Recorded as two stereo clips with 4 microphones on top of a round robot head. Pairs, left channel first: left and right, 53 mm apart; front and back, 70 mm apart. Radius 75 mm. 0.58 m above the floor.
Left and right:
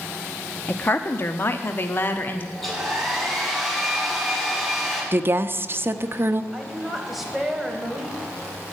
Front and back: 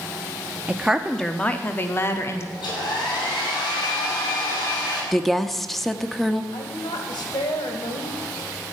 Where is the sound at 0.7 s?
120° left, 0.8 m; by 2.5 s 45° left, 1.6 m.